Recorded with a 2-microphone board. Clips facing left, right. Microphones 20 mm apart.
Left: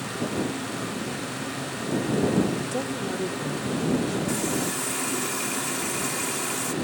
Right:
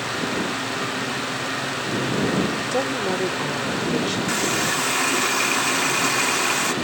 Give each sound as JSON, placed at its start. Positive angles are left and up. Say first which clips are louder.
{"t": 2.7, "sound": "a woman speaking", "louder": "right 6 dB", "side_deg": -45}
{"t": 4.3, "sound": "a running tap", "louder": "right 5 dB", "side_deg": -50}